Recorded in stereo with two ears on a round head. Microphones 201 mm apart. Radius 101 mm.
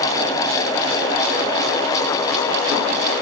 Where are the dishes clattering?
I don't hear dishes clattering.